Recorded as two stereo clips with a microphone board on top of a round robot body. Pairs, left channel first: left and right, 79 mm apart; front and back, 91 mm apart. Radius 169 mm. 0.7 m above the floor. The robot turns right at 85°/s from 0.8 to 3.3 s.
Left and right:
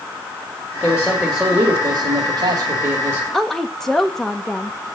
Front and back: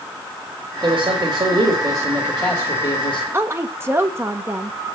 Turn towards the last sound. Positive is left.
turn(degrees=170)